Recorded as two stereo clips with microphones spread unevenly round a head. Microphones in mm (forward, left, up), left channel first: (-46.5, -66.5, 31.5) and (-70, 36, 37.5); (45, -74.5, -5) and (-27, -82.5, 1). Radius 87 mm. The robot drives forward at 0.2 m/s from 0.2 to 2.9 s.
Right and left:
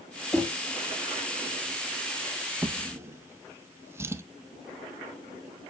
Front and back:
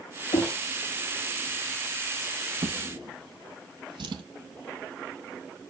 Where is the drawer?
170° left, 0.6 m.